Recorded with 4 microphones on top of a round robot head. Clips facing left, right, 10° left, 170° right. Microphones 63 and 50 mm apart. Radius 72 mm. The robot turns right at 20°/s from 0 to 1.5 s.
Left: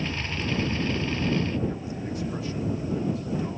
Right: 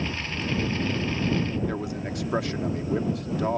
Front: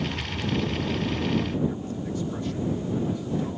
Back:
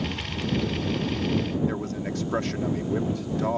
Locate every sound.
1.7 s a man speaking: 130° right